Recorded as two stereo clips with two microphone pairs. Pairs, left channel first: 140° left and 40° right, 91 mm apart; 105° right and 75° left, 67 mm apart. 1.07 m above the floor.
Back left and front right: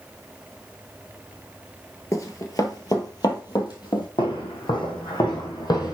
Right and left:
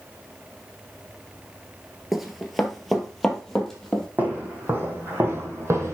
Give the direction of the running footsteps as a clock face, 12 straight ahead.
7 o'clock.